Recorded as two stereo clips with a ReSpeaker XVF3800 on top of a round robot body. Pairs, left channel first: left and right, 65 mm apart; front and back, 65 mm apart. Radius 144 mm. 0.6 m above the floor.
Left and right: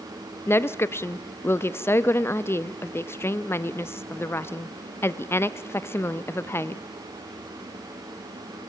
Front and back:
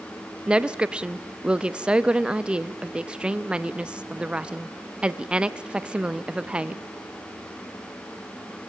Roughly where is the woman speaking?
Left.